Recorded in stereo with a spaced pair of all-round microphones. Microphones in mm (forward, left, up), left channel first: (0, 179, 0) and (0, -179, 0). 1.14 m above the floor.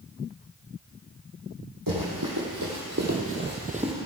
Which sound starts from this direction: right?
Running footsteps, at 1.9 s.